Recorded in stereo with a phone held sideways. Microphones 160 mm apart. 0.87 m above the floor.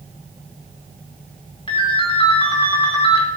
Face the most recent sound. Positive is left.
turn(degrees=30)  # may be behind; listen again after turning